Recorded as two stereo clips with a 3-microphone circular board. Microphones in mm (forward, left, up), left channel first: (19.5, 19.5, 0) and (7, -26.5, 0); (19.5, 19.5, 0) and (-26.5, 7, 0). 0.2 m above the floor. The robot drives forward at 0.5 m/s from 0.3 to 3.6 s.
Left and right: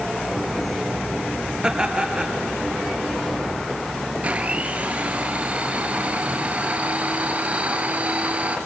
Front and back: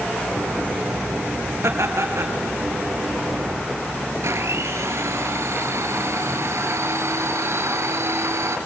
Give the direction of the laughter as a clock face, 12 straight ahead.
6 o'clock.